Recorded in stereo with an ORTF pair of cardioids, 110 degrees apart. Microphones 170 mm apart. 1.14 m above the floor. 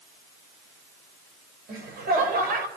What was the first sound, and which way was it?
Laughter, 65° right.